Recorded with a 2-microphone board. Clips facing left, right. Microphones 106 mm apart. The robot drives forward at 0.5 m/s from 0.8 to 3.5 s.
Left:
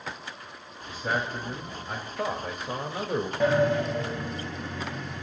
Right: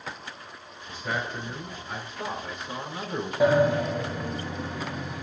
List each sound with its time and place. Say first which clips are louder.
0.9 s a man speaking: left 2 dB; 45° left (ahead or behind), 3 m; by 3.3 s 65° left (ahead or behind), 2 m
3.4 s a sliding door: right 3 dB; 10° right (ahead or behind), 1.8 m